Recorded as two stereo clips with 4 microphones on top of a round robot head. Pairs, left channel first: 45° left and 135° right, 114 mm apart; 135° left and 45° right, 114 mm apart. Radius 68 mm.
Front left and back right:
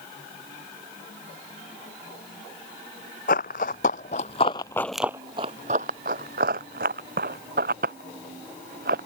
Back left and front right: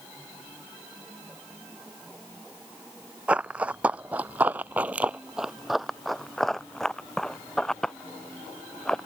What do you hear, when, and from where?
3.3 s running footsteps: 35° left; by 9.1 s 140° right